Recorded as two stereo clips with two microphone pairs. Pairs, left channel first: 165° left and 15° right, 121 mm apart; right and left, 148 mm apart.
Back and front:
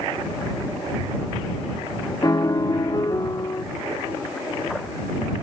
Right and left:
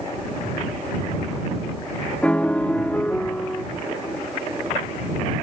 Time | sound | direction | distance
2.2 | a piano | 165° right | ?